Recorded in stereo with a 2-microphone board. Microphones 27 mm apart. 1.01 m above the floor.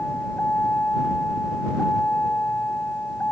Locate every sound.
0.0 s a vehicle: 85° left; by 3.3 s 70° left (ahead or behind)